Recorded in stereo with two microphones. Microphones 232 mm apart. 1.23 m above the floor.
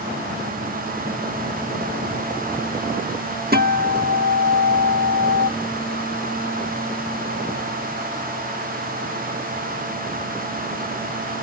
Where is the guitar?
40° right (ahead or behind).